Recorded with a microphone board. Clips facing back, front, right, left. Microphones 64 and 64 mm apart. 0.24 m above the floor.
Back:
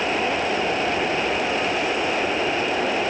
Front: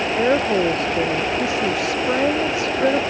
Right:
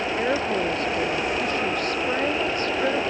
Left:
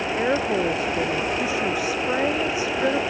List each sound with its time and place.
0.2 s a woman speaking: 5° left